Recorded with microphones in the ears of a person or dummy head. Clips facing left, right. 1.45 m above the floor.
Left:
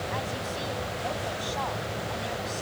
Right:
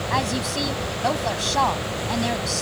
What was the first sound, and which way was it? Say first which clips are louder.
A woman speaking: right 8 dB; 70° right (ahead or behind).